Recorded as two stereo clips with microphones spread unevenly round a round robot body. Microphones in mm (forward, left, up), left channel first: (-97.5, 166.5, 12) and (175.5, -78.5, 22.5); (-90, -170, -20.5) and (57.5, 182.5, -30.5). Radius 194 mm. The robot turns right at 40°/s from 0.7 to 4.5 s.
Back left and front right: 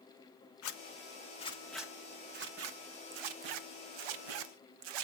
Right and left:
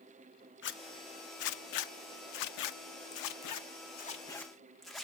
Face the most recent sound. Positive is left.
turn(degrees=-25)